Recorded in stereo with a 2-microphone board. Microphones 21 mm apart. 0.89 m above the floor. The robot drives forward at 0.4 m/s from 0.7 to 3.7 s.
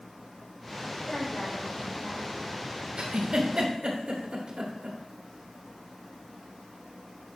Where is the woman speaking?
70° left (ahead or behind), 4.5 m; by 2.4 s 60° left (ahead or behind), 4.5 m.